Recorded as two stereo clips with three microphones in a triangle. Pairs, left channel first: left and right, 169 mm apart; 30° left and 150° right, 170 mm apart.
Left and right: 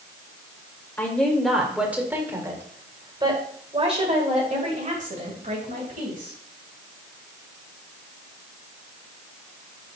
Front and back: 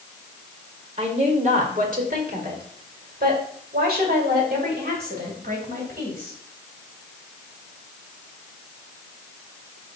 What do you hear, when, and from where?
1.0 s a woman speaking: 170° left, 1.7 m; by 6.3 s 120° right, 3 m